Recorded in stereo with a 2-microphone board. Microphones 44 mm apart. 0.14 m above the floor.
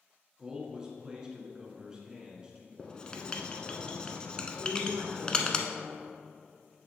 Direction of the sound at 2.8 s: 20° left (ahead or behind).